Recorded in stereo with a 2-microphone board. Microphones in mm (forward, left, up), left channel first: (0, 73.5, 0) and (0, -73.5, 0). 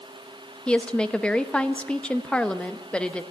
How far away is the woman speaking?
About 0.7 m.